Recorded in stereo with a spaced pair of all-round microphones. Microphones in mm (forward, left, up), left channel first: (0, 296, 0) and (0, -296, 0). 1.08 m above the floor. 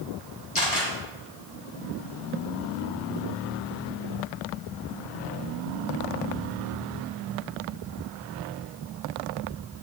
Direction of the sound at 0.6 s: 60° left (ahead or behind).